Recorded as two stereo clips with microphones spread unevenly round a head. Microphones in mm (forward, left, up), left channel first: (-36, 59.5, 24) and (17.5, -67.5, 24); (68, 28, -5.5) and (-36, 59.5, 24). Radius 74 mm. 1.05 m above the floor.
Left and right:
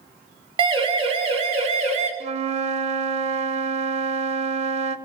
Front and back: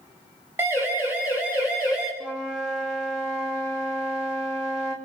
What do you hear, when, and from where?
0.6 s a siren: 120° right, 4 m; by 2.1 s 105° right, 4.5 m
2.2 s a flute: 110° right, 1.2 m